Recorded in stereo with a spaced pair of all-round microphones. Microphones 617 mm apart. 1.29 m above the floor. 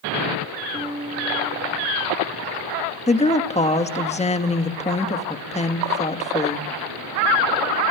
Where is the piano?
10° left (ahead or behind), 6.5 m.